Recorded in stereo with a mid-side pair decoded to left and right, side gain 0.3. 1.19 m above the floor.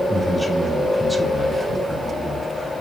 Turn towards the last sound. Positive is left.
turn(degrees=-25)